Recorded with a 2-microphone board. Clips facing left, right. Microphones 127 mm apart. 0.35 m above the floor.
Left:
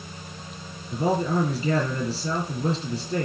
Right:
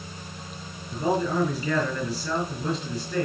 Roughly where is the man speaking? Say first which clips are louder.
Left 1 dB; left.